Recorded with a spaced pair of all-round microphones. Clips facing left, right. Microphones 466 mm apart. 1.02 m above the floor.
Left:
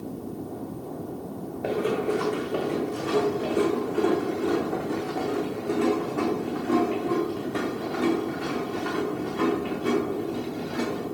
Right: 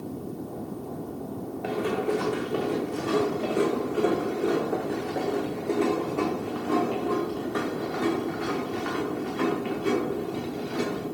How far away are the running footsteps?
About 3 m.